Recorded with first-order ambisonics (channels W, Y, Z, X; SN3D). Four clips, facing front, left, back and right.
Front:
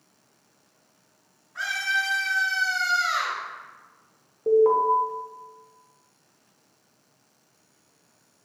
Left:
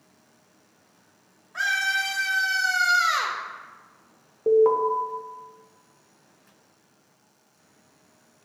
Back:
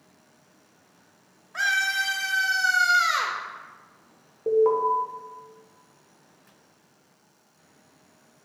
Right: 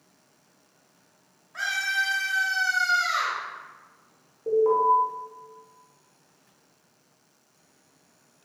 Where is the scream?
175° left, 2 m; by 3.4 s 135° left, 1.7 m.